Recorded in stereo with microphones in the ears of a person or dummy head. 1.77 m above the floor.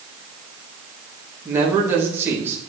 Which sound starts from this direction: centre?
A man speaking, at 1.4 s.